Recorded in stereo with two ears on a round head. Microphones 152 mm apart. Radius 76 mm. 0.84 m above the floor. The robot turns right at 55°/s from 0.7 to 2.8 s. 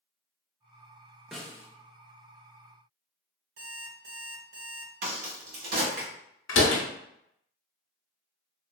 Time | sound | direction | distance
1.3 | a snare drum | centre (ahead or behind) | 0.5 m
3.6 | an alarm clock | 75° right (ahead or behind) | 1.3 m
5.0 | a crack | 65° right (ahead or behind) | 1.2 m
6.5 | a door slam | 85° left | 0.6 m